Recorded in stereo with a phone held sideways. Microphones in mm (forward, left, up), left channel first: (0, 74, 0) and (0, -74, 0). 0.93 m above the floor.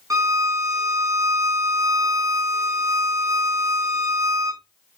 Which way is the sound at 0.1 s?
20° right (ahead or behind).